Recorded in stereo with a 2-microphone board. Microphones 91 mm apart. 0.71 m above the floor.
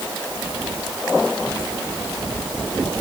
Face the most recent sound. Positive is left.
No sound to turn to.